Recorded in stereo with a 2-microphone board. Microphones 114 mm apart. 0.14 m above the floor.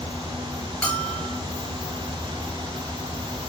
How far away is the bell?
About 1.4 m.